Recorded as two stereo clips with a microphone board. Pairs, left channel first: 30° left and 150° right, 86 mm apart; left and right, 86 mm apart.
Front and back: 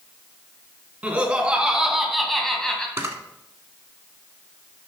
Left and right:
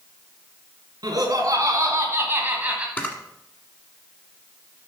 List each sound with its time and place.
1.0 s laughter: 80° right, 2.5 m; by 2.9 s 30° right, 1.6 m
3.0 s a camera shutter: 160° left, 1.3 m